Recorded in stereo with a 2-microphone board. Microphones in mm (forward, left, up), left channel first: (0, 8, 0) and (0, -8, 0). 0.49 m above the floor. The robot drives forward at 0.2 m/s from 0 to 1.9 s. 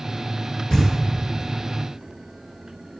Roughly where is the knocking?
Left.